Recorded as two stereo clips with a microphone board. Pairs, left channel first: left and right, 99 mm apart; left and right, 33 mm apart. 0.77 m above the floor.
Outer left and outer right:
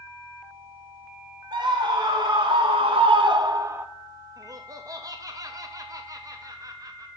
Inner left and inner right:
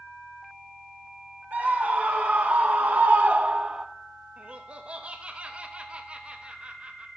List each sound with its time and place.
1.5 s a scream: 50° right (ahead or behind), 1.6 m; by 3.9 s 20° right (ahead or behind), 0.6 m
4.4 s laughter: 35° right (ahead or behind), 0.8 m